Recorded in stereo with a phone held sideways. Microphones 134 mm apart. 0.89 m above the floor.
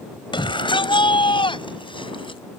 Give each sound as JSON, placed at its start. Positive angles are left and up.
{"t": 0.3, "sound": "a shout", "side_deg": 40}